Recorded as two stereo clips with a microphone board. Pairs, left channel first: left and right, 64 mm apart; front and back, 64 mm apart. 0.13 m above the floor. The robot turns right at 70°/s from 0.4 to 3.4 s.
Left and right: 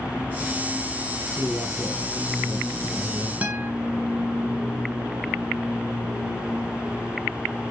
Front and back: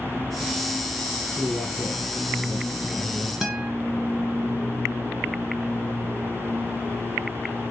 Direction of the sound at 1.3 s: 175° left.